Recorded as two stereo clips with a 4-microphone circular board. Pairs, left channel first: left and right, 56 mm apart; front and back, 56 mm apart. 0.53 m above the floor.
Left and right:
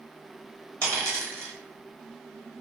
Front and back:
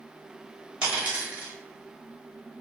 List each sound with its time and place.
0.8 s a dropped coin: 115° right, 1.2 m